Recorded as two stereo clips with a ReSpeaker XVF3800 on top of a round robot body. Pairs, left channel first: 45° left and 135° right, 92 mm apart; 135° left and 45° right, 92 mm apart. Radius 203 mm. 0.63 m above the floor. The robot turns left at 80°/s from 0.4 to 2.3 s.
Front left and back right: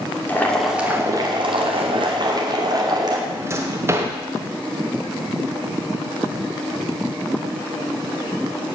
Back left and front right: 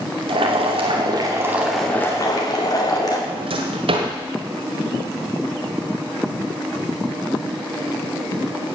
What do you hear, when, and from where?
0.3 s boiling: 25° right, 2.5 m; by 3.2 s 175° right, 2.5 m
3.3 s a drawer: 70° right, 1.4 m